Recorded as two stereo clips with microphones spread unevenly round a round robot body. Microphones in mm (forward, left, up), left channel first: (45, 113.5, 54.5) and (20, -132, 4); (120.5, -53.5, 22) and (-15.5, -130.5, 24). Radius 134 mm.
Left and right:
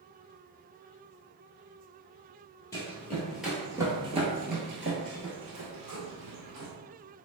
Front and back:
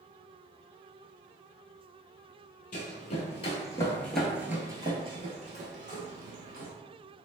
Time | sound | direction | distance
2.7 | running footsteps | 20° left | 1.0 m